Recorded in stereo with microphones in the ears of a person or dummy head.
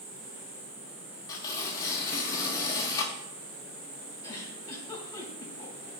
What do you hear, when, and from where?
0.0 s an insect: 5° left (ahead or behind), 2.5 m
1.3 s tearing paper: 20° left (ahead or behind), 1.5 m
4.2 s a giggle: 20° left (ahead or behind), 3 m